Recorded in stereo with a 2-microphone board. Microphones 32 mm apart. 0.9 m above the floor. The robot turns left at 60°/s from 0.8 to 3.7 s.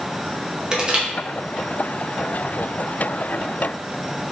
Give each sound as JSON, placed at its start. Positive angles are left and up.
{"t": 0.7, "sound": "crushing", "side_deg": -25, "distance_m": 0.7}